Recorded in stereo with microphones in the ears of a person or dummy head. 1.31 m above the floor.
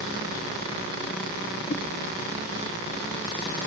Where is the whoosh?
55° left (ahead or behind), 1.1 m.